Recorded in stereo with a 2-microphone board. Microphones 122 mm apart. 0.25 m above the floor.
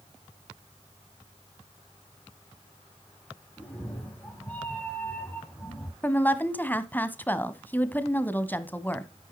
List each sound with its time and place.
3.6 s a cat meowing: 10° left (ahead or behind), 5.5 m; by 5.9 s 15° left (ahead or behind), 3.5 m
6.0 s a woman speaking: 15° left (ahead or behind), 1.5 m